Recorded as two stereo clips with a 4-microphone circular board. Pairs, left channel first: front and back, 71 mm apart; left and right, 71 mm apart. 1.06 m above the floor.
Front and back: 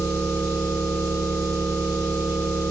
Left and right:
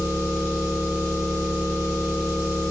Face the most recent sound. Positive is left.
turn(degrees=140)